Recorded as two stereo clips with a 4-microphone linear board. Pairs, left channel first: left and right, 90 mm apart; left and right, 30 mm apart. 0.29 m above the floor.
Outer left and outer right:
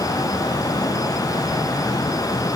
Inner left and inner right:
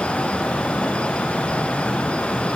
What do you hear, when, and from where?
Only background noise.